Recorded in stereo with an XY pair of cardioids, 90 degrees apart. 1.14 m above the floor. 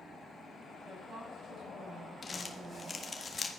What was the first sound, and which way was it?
A woman speaking, 70° right.